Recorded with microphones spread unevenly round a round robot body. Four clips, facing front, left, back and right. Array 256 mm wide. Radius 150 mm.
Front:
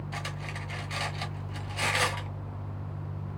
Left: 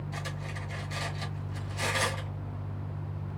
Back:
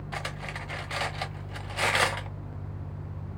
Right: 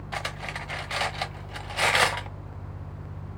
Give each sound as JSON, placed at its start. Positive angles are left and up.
{"t": 0.1, "sound": "cutlery clinking", "azimuth_deg": -85, "distance_m": 1.0}